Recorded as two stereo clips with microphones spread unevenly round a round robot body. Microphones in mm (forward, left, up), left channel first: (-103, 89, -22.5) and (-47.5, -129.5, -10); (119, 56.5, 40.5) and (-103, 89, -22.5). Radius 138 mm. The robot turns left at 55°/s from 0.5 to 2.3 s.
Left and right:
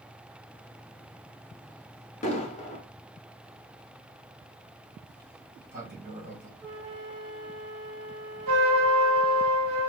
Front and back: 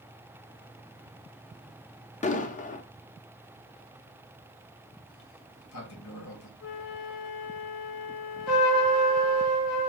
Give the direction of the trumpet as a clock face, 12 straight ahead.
1 o'clock.